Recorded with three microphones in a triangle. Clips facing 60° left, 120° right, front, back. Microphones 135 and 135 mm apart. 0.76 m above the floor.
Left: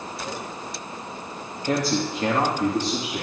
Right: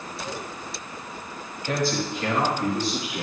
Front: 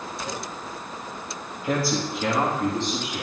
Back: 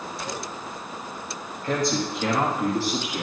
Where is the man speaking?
70° left, 1.3 m; by 3.2 s 110° left, 1.8 m.